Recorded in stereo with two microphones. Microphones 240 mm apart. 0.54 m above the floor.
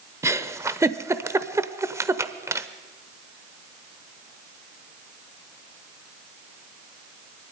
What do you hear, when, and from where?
0.2 s a giggle: 10° right (ahead or behind), 0.8 m